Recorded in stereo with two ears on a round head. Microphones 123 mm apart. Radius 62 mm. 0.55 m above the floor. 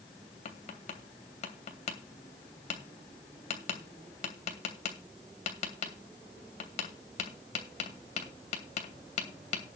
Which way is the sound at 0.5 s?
50° left (ahead or behind).